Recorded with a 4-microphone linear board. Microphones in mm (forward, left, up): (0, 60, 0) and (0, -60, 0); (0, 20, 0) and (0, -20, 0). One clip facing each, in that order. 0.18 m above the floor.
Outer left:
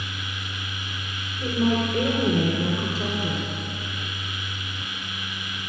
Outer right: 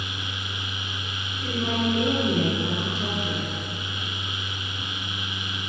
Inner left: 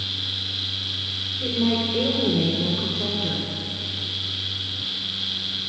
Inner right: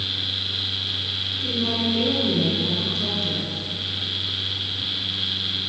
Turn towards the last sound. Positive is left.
turn(degrees=35)  # may be behind; listen again after turning